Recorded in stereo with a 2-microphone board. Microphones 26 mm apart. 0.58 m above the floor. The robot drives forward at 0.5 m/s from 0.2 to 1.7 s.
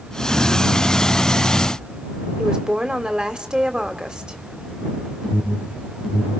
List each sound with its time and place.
2.4 s a woman speaking: 35° right (ahead or behind), 1.9 m
5.2 s an alarm: 10° right (ahead or behind), 4 m